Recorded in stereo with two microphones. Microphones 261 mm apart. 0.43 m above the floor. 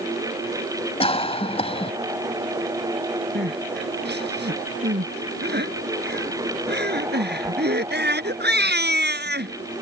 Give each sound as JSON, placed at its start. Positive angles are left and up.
{"t": 1.0, "sound": "a cough", "side_deg": 25}
{"t": 3.4, "sound": "crying", "side_deg": -40}